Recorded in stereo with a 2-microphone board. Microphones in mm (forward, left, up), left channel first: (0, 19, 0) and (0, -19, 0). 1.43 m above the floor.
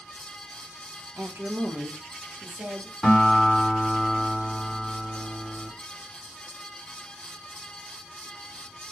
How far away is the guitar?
About 3 m.